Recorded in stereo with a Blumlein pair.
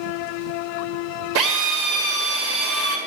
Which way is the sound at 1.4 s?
45° right.